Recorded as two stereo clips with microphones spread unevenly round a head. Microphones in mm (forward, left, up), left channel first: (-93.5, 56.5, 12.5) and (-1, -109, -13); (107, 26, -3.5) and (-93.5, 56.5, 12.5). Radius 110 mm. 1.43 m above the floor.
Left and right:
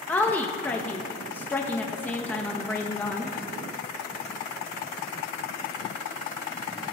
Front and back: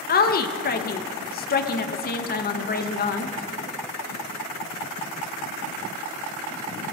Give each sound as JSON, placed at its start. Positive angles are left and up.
{"t": 0.1, "sound": "a woman speaking", "azimuth_deg": 35, "distance_m": 1.7}